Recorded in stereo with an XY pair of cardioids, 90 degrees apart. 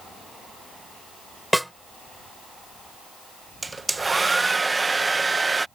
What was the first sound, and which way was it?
A snare drum, straight ahead.